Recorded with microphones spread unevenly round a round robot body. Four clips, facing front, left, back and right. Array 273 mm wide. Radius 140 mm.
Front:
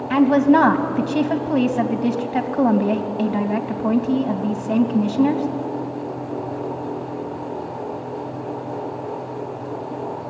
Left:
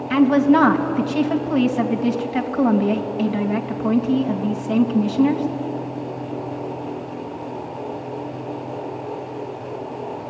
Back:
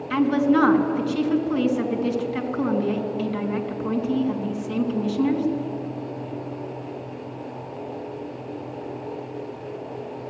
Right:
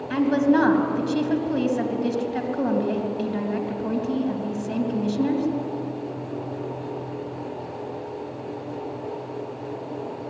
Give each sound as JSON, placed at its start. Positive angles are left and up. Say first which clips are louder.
{"t": 0.1, "sound": "a woman speaking", "louder": "left 5 dB, front 5 dB", "azimuth_deg": 15, "distance_m": 3.0}